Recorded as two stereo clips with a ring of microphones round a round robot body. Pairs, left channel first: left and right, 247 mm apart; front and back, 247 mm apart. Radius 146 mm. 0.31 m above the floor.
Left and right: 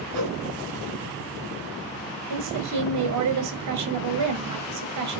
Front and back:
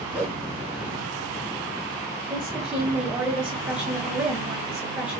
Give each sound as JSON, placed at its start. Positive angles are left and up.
{"t": 0.1, "sound": "a whoosh", "azimuth_deg": -95, "distance_m": 5.5}
{"t": 2.3, "sound": "a woman speaking", "azimuth_deg": -95, "distance_m": 5.0}